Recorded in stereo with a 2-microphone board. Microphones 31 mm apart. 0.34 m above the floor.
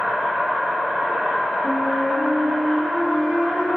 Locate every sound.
0.0 s an insect: 60° right (ahead or behind), 1.5 m
1.6 s a flute: 15° right (ahead or behind), 1.1 m